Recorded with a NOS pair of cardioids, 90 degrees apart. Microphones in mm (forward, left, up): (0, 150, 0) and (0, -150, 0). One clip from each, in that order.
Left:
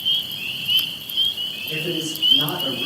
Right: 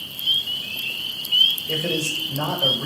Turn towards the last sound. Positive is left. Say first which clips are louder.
# right 2 dB
turn(degrees=-65)